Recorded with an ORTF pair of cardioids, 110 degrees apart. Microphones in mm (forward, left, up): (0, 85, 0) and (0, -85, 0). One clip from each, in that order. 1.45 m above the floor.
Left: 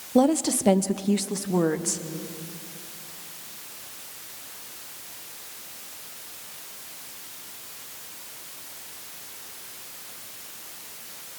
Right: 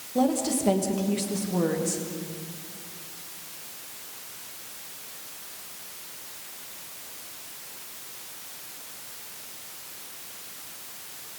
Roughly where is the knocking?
No knocking in this recording.